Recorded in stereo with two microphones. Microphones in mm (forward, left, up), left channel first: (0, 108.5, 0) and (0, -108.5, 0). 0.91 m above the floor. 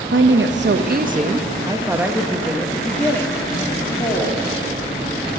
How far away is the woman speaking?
About 0.7 m.